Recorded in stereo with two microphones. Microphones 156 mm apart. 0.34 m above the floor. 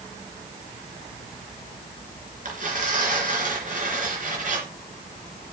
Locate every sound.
2.5 s tearing paper: 50° right (ahead or behind), 3 m